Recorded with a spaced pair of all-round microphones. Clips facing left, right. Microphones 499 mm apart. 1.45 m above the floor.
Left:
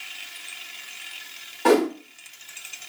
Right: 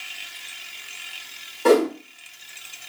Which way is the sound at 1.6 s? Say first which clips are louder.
Right 2 dB; 5° left (ahead or behind).